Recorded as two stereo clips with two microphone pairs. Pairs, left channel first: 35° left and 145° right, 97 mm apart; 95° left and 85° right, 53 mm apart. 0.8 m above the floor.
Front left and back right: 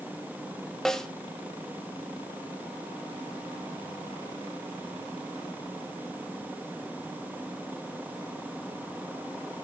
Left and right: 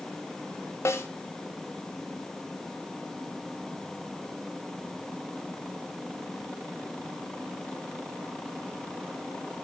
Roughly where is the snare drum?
Behind left.